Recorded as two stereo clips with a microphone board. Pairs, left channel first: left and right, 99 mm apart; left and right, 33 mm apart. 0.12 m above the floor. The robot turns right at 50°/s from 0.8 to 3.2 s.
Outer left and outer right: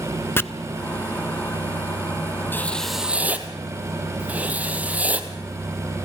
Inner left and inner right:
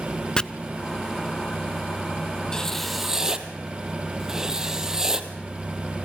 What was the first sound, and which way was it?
Chopping, 20° left (ahead or behind).